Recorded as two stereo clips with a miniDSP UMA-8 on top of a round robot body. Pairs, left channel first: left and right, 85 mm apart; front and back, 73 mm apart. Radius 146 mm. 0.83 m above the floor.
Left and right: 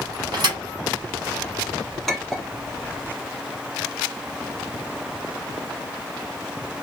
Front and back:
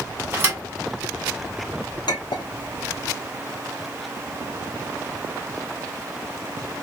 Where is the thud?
125° right, 2.5 m.